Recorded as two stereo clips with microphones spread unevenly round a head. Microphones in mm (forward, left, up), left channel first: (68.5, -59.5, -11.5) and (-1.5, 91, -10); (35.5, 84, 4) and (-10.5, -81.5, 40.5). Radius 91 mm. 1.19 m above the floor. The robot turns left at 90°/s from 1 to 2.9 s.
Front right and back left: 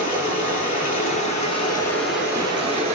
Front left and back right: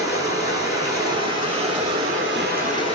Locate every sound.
0.0 s running water: 55° right, 1.4 m; by 3.0 s 135° left, 1.4 m